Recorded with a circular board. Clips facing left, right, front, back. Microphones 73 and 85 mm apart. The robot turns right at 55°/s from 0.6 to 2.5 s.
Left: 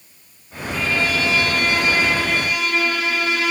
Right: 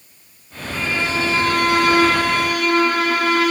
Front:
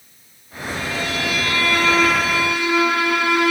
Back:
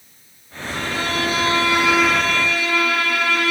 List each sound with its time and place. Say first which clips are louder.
0.7 s a violin: left 1 dB, back 2 dB; 165° right, 1.7 m; by 3.5 s 70° right, 1.7 m